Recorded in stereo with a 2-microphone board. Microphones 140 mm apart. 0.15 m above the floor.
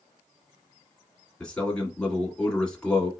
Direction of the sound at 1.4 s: 5° left (ahead or behind).